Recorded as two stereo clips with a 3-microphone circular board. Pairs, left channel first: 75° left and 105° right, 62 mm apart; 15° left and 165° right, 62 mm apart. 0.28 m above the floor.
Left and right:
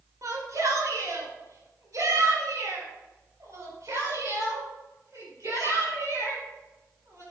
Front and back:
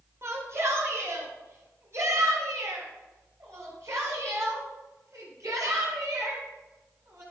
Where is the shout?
125° right, 4 m; by 7.2 s 135° right, 9 m.